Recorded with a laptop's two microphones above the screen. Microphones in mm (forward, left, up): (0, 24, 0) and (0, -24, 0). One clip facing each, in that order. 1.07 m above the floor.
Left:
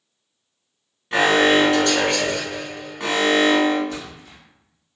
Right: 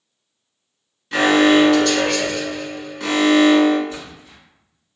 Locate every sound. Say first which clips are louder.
1.1 s an alarm: right 2 dB; 25° left (ahead or behind), 1.3 m
3.9 s a splash: left 1 dB; 60° left (ahead or behind), 1.3 m